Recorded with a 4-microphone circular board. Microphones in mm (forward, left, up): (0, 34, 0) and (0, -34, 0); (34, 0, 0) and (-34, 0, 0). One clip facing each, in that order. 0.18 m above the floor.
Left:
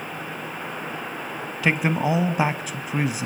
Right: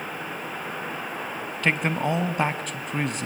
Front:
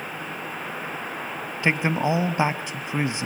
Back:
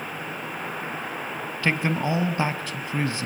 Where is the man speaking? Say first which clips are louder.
Left 2 dB, front 2 dB; 20° left, 1.0 m.